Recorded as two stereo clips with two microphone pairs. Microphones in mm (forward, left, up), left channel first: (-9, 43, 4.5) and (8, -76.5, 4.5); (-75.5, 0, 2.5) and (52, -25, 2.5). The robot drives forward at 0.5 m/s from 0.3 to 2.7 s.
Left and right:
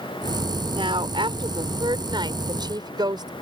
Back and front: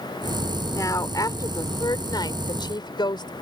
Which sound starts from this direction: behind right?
A woman speaking, at 0.7 s.